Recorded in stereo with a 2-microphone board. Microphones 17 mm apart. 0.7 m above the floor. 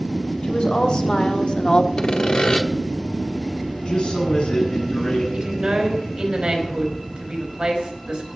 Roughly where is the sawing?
Left.